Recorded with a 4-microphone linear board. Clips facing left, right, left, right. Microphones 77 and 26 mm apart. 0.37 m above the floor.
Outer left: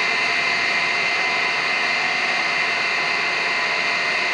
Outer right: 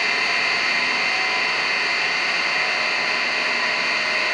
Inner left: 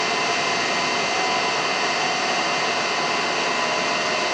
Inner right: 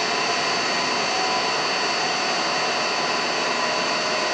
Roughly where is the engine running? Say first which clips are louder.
Outer left 1 dB, inner left 1 dB; left.